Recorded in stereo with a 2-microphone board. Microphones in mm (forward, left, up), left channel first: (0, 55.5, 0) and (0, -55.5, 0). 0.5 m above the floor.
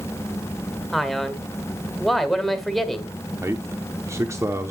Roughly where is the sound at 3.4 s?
Right.